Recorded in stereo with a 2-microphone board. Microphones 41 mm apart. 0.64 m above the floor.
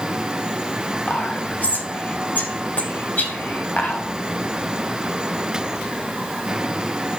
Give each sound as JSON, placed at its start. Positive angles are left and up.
{"t": 1.1, "sound": "whispering", "side_deg": 40, "distance_m": 3.5}